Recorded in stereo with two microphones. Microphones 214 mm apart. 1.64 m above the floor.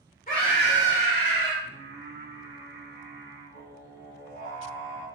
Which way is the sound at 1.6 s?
50° left (ahead or behind).